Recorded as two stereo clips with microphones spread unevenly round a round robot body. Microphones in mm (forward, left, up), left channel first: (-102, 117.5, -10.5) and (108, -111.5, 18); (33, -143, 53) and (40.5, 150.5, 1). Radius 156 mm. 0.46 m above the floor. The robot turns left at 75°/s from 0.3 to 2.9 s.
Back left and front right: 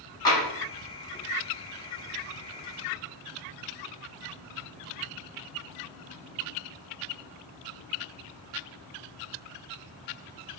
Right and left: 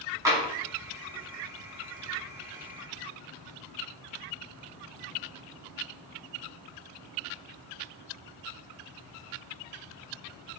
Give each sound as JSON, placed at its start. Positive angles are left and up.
{"t": 0.2, "sound": "tapping", "azimuth_deg": 90, "distance_m": 1.1}